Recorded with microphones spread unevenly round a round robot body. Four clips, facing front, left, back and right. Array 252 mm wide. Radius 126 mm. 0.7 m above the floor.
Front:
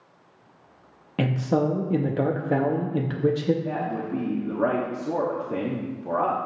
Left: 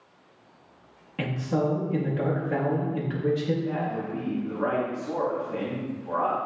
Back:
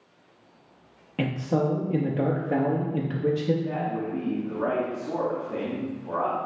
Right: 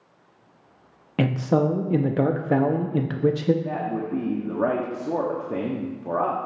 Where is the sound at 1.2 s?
70° right, 0.5 m.